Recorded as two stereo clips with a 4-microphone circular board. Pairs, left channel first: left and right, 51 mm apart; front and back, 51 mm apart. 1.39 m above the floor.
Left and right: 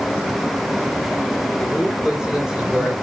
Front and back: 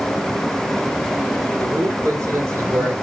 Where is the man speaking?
165° right, 3.5 m.